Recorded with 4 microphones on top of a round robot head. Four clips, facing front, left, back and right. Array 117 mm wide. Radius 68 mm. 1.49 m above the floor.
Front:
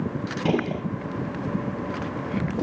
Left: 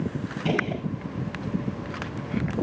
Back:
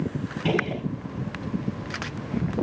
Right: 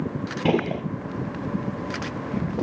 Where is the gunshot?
70° right, 1.6 m.